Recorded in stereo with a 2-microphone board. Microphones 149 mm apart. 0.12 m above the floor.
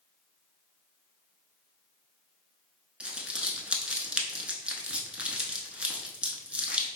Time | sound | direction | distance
3.0 | crumpling | 10° right (ahead or behind) | 0.5 m